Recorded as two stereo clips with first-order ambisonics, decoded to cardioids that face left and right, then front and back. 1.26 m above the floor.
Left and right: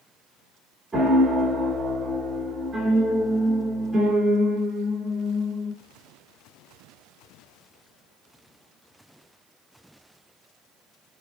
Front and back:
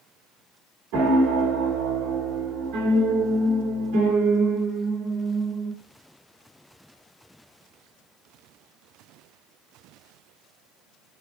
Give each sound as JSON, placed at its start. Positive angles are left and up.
{"t": 0.9, "sound": "a piano", "azimuth_deg": 180, "distance_m": 3.0}